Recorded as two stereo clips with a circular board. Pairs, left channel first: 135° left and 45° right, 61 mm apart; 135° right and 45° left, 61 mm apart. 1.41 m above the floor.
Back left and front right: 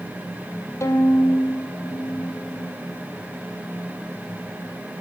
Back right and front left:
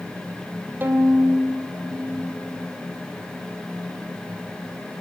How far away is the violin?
About 3 m.